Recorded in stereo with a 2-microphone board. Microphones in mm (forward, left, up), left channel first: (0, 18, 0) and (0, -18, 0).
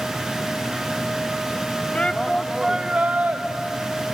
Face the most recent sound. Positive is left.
turn(degrees=-45)  # may be behind; listen again after turning